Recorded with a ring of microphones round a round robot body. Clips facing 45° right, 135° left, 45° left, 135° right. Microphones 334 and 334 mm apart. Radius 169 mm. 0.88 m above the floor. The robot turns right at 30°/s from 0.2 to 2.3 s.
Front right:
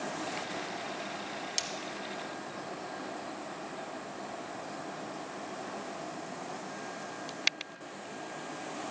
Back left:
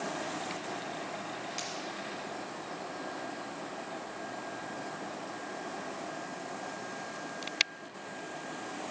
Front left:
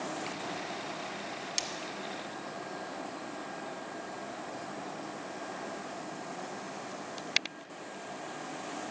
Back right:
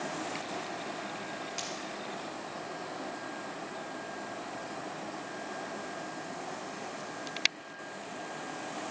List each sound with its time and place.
1.6 s breaking glass: straight ahead, 1.4 m; by 1.7 s 5° left, 1.4 m